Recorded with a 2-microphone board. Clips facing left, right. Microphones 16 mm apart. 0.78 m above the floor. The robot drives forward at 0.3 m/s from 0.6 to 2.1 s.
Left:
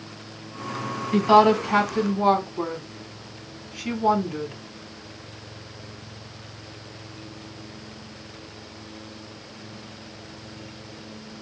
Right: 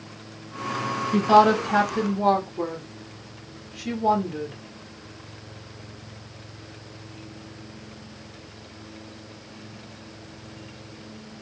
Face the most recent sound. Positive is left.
turn(degrees=55)  # may be behind; listen again after turning